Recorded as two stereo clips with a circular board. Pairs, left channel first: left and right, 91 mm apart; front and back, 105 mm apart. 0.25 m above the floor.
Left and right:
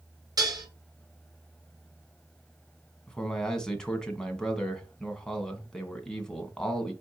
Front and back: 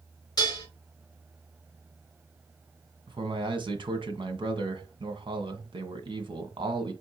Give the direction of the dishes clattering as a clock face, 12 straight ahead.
2 o'clock.